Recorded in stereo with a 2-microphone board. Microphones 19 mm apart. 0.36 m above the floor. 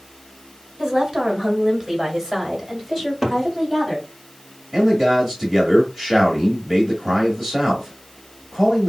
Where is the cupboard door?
5° right (ahead or behind), 1.4 m.